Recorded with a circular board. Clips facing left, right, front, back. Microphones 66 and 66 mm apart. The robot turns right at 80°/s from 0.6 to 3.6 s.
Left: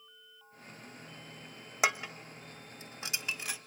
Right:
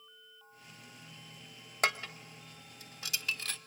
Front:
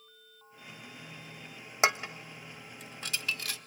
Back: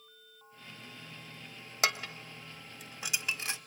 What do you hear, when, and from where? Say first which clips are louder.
1.8 s dishes clattering: left 1 dB, front 4 dB; 15° left, 0.7 m; by 3.6 s 155° left, 0.7 m